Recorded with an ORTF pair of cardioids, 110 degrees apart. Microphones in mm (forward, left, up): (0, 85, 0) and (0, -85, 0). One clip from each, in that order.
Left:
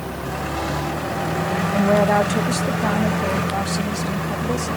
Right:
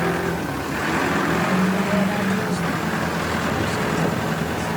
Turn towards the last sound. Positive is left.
turn(degrees=60)